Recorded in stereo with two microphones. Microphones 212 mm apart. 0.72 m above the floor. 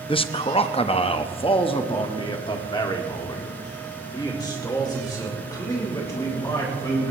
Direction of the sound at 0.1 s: 25° left (ahead or behind).